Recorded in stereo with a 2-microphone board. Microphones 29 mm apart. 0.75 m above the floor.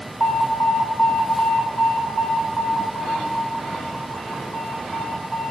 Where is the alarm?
65° left (ahead or behind), 5 m.